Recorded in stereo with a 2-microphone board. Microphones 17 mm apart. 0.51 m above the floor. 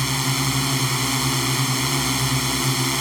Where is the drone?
5° right (ahead or behind).